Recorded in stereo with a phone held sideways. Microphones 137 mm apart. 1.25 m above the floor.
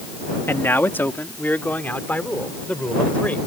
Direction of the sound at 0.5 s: 15° left (ahead or behind).